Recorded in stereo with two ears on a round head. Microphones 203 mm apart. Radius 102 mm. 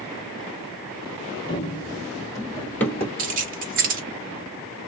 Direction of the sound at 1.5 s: 20° left (ahead or behind).